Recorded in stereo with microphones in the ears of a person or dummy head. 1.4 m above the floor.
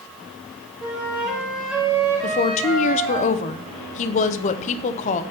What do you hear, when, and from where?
0.8 s a flute: 5° right (ahead or behind), 2 m
2.2 s a woman speaking: 40° left (ahead or behind), 0.7 m